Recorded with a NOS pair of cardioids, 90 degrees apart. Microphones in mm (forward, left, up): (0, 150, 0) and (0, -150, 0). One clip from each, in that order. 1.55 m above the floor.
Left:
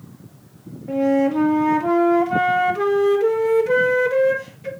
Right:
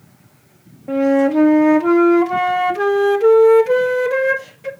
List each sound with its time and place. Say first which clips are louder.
0.9 s a flute: right 4 dB; 25° right, 1.8 m